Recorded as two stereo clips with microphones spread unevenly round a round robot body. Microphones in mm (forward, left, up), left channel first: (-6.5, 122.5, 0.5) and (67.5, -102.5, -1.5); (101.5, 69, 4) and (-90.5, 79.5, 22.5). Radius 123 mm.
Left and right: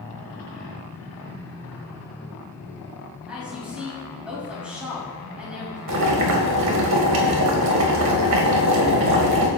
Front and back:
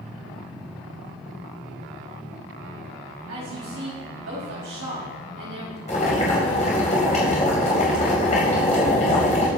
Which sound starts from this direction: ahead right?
Boiling, at 5.9 s.